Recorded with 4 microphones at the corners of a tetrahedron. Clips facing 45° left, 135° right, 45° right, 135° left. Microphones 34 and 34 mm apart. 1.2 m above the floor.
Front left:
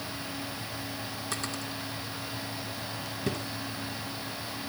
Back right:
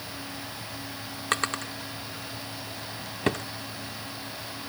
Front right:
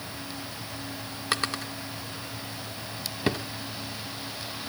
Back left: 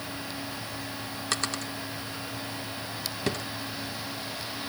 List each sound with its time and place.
1.3 s a drawer: 115° right, 0.8 m